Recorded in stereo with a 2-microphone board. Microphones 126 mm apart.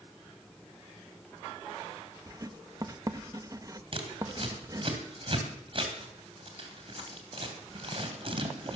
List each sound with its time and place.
2.3 s writing: 30° right (ahead or behind), 0.7 m
3.9 s scissors: 45° right (ahead or behind), 2.5 m